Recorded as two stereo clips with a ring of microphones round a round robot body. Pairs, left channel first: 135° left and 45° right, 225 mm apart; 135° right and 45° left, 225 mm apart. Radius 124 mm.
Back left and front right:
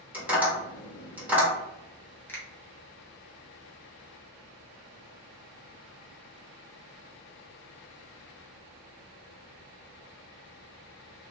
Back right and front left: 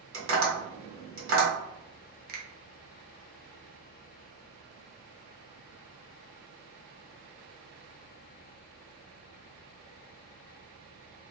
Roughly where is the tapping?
Ahead left.